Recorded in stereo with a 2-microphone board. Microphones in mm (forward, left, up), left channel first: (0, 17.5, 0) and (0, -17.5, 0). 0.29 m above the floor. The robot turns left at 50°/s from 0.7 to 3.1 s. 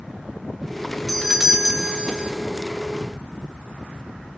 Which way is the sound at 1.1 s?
Centre (ahead or behind).